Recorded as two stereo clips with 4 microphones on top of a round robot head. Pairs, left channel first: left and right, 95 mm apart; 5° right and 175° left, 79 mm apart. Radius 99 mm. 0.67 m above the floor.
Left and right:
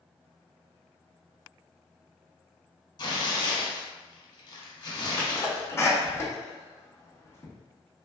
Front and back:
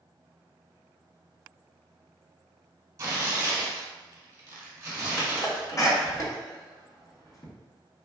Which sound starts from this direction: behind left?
Tearing paper, at 3.0 s.